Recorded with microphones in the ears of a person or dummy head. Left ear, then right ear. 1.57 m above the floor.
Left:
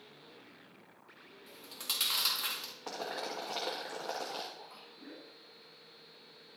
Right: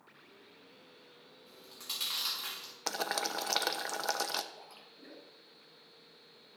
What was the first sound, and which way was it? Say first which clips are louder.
Chewing: left 4 dB; 20° left (ahead or behind).